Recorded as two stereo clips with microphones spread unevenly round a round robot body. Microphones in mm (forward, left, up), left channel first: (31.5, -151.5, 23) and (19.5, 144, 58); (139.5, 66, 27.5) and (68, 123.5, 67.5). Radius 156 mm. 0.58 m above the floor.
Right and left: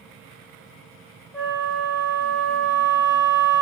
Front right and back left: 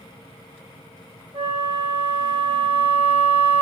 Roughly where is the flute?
Behind.